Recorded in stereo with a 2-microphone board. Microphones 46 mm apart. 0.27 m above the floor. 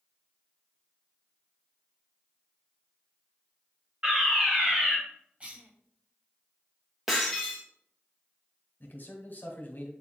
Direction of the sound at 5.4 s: 25° right (ahead or behind).